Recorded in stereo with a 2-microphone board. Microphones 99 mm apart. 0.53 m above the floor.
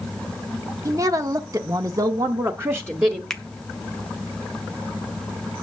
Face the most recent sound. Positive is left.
turn(degrees=5)  # may be behind; listen again after turning